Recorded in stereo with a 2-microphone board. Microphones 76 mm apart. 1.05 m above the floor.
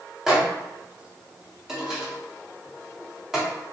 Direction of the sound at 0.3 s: 5° right (ahead or behind).